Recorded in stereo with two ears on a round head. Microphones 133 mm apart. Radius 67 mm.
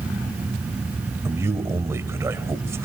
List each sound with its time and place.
1.2 s a man speaking: 20° right (ahead or behind), 1.9 m